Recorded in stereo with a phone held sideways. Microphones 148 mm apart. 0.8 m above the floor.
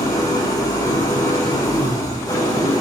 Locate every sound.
0.0 s an engine running: 25° left (ahead or behind), 1.8 m